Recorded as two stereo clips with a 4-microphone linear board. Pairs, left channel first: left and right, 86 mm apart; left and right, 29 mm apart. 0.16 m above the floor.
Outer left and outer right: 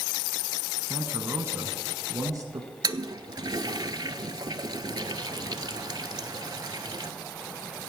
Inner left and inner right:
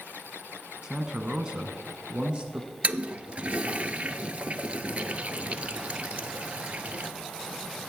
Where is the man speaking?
20° right (ahead or behind), 1.2 m; by 2.7 s 45° right (ahead or behind), 1.6 m.